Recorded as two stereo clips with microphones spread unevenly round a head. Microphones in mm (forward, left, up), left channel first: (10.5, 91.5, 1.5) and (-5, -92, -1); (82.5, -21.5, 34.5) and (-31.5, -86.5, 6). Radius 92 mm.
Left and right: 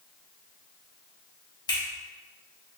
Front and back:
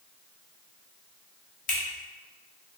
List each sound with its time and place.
1.7 s a finger snap: 15° left, 1.1 m